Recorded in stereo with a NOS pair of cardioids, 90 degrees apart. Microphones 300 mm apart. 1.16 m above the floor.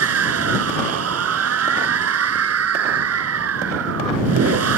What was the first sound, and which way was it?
A machine running, 55° right.